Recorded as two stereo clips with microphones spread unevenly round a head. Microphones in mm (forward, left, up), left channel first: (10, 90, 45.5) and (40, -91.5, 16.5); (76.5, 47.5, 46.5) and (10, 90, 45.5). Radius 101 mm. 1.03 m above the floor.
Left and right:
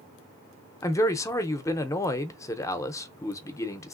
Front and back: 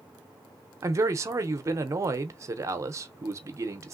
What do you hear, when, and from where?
0.8 s a man speaking: 175° left, 0.5 m